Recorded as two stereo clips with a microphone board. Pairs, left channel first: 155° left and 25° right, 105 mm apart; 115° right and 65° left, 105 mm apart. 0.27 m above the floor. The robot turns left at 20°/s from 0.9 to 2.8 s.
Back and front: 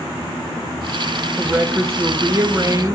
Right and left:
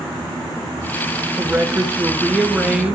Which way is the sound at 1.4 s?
25° left.